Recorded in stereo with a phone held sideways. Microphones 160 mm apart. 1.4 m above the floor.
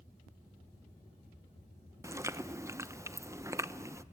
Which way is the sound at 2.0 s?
15° right (ahead or behind).